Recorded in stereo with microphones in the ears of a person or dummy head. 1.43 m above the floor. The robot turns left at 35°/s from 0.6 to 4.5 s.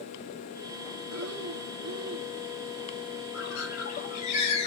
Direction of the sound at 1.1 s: 95° right.